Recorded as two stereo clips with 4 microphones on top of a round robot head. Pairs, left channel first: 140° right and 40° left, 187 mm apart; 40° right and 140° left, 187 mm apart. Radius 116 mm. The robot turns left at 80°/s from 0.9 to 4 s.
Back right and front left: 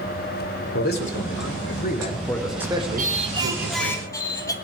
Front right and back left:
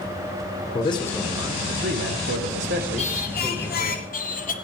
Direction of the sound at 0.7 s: 105° right.